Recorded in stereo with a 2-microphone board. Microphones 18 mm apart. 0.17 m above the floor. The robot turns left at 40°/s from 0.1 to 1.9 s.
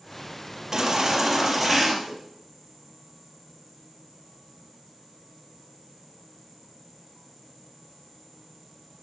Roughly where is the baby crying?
Behind right.